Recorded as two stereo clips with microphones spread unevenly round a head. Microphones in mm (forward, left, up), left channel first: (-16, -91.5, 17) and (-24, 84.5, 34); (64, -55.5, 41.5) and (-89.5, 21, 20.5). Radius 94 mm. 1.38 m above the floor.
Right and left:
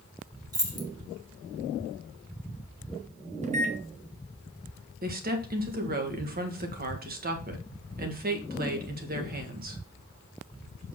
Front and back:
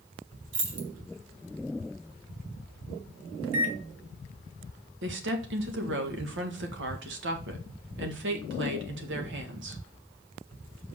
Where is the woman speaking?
135° left, 1.8 m.